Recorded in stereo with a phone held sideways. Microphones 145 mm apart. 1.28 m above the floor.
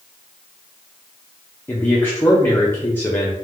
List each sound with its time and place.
1.7 s a man speaking: 15° left (ahead or behind), 0.7 m